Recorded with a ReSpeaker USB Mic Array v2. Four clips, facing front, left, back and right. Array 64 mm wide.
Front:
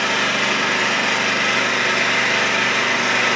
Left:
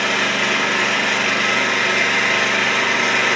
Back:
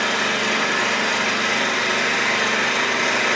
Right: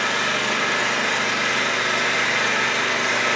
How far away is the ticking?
I don't hear ticking.